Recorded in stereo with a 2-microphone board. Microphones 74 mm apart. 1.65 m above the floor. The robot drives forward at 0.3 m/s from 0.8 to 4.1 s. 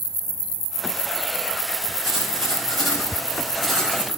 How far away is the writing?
About 3.5 m.